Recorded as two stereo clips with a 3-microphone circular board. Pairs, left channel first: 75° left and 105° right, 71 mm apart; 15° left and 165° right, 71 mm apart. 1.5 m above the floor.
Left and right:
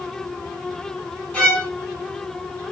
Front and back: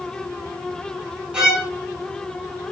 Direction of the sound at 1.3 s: 135° left.